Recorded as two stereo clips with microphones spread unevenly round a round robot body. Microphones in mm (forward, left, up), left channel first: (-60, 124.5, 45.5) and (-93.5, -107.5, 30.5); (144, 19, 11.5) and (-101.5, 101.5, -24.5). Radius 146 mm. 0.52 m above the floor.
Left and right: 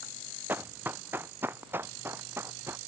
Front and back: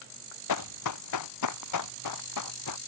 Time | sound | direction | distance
0.5 | running footsteps | 15° right | ?